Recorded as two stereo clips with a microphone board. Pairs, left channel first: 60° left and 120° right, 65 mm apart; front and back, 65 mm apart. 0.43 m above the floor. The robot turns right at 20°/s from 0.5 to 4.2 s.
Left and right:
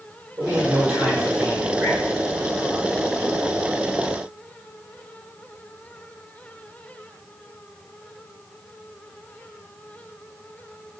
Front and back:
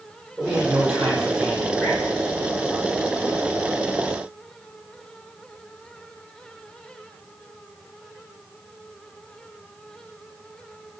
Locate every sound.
0.4 s a man speaking: 105° right, 1.9 m; by 2.0 s 75° right, 1.9 m